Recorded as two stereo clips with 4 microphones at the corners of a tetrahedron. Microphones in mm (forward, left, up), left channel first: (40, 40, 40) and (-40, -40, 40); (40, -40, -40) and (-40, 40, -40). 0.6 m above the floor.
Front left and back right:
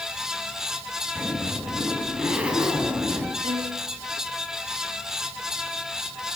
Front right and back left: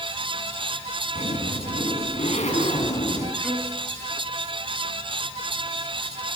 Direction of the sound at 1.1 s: 55° right.